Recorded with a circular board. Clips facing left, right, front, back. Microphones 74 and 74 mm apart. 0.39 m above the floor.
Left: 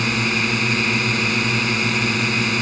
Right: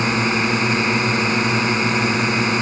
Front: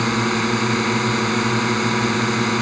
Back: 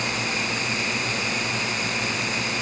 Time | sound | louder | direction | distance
0.0 | a drone | right 3 dB, front 8 dB | 25° right | ?